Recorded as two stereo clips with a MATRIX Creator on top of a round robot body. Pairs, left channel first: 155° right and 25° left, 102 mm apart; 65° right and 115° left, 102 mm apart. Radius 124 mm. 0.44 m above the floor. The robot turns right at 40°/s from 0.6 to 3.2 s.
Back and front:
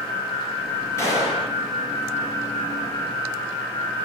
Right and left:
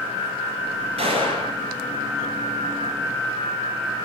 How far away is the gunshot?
About 3.5 m.